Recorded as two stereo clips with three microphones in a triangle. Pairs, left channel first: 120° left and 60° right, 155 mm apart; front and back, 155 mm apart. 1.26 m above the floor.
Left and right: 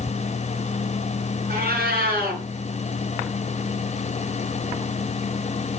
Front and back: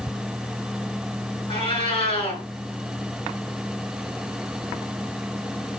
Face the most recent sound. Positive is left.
turn(degrees=-55)